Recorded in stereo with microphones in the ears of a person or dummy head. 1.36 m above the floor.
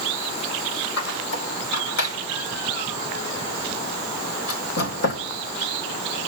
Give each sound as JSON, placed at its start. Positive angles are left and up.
{"t": 1.0, "sound": "a squeak", "side_deg": 65, "distance_m": 4.0}